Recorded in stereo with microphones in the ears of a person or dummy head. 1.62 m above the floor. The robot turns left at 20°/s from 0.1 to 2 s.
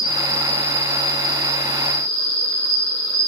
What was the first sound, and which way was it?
An insect, 175° left.